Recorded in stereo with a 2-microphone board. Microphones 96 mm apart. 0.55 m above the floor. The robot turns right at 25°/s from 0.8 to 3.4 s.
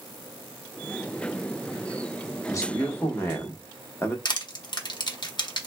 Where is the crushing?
50° left (ahead or behind), 0.8 m.